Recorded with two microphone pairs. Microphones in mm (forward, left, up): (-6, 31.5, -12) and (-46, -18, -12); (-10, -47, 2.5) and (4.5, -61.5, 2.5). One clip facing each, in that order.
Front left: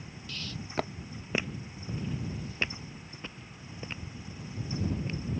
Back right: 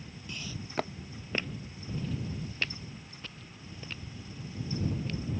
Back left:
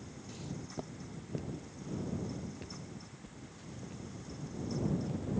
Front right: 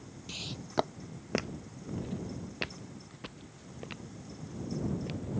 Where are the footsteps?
65° right; by 5.4 s 15° right.